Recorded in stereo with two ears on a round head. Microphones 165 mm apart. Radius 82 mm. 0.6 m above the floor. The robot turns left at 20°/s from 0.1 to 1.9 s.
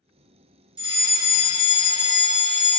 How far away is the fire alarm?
About 1.6 m.